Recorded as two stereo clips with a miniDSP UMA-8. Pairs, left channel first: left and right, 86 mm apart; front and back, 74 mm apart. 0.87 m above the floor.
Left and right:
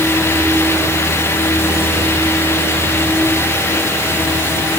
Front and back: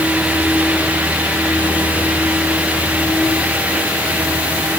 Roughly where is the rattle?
No rattle in this recording.